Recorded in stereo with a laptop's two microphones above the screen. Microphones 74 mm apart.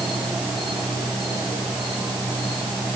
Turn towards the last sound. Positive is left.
turn(degrees=0)  # may be behind; listen again after turning